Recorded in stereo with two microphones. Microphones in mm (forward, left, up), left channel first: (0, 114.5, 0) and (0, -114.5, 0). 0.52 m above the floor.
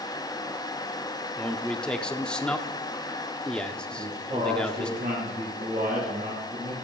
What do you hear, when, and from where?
1.4 s a man speaking: 5° left (ahead or behind), 0.8 m
3.9 s a man speaking: 35° right (ahead or behind), 5.5 m